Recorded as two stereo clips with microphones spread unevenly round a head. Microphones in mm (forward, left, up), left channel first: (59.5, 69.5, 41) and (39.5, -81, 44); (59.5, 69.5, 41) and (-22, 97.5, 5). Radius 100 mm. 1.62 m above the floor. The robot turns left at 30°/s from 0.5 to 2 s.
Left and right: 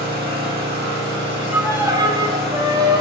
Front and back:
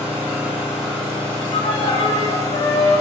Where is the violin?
15° right, 0.6 m; by 3.0 s 30° right, 0.6 m.